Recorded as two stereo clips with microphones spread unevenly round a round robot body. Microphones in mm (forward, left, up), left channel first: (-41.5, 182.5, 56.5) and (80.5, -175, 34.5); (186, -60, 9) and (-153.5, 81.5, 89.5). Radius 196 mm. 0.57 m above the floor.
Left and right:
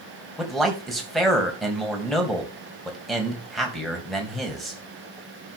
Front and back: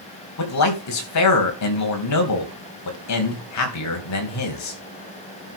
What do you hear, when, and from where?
0.4 s a man speaking: 20° left, 3.5 m